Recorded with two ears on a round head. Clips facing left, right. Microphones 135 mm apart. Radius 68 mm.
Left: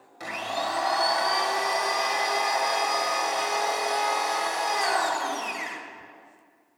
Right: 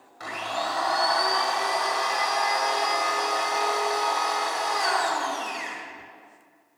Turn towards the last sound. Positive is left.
turn(degrees=20)  # may be behind; listen again after turning